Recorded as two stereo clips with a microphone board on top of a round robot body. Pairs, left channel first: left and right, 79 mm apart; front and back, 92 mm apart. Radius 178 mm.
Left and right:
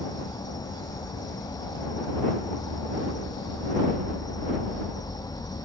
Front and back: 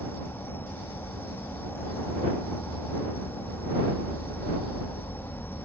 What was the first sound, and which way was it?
An insect, 65° left.